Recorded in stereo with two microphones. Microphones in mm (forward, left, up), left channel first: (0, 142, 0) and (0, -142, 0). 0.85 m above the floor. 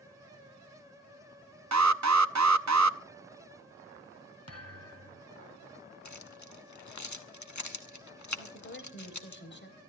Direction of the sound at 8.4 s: 40° left (ahead or behind).